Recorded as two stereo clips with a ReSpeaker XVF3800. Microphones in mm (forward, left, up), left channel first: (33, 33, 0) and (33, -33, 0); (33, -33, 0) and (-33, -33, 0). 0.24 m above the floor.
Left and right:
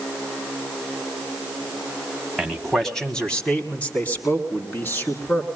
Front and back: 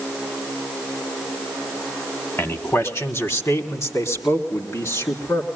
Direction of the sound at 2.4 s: 5° right.